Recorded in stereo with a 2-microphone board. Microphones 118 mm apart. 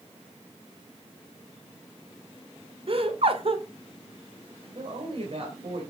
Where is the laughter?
55° right (ahead or behind), 2 m.